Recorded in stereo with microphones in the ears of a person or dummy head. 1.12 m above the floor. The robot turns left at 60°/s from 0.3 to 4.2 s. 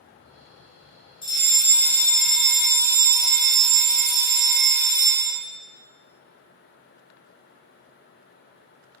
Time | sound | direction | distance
1.2 | a fire alarm | 20° left (ahead or behind) | 1.6 m